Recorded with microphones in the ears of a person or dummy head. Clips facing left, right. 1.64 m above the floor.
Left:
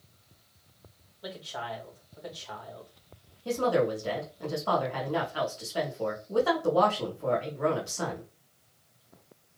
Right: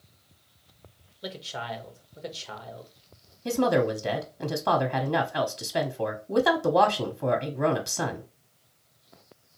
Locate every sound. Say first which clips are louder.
1.2 s a man speaking: right 2 dB; 35° right (ahead or behind), 1.2 m
3.5 s a woman speaking: right 3 dB; 80° right, 0.9 m